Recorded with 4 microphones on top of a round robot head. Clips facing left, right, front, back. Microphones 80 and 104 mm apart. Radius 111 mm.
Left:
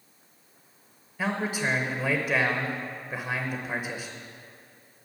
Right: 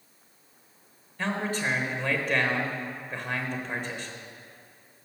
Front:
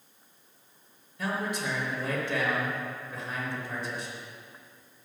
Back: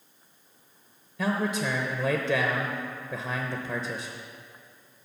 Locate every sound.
1.2 s a man speaking: 170° left, 0.7 m